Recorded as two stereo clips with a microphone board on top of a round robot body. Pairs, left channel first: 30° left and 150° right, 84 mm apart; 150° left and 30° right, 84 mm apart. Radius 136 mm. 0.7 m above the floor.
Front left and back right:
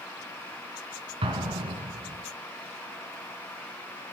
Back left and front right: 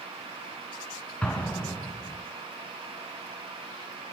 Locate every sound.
1.2 s an explosion: 130° right, 2 m